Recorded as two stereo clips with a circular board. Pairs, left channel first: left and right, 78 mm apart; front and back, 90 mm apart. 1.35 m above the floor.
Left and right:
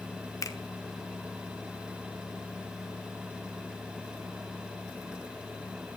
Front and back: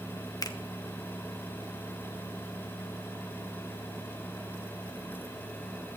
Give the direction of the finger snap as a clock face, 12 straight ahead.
10 o'clock.